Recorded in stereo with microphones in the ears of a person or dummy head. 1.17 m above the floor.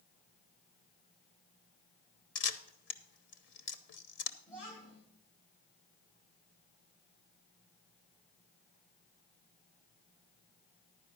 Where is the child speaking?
30° left (ahead or behind), 3.5 m.